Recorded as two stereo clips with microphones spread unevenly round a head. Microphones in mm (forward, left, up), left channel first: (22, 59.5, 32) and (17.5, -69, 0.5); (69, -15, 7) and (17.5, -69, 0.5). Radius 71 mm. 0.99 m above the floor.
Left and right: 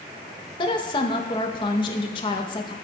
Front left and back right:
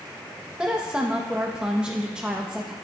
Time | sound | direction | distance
0.6 | a woman speaking | 145° left | 1.0 m